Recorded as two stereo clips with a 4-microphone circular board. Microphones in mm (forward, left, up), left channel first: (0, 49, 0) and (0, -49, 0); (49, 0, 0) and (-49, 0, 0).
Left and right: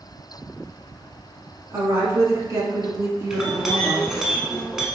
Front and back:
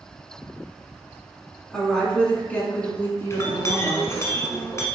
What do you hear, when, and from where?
1.7 s a woman speaking: 85° right, 1.6 m; by 4.3 s 50° right, 2.5 m
3.3 s a clink: 10° right, 1.0 m